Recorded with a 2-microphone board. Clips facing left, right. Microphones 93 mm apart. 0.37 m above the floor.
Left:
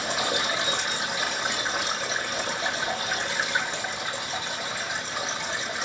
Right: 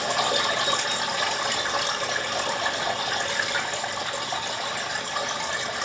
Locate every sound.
0.0 s running water: 60° right (ahead or behind), 2.5 m